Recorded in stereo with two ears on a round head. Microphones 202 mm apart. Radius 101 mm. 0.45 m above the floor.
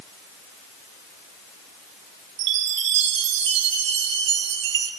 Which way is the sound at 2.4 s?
55° right (ahead or behind).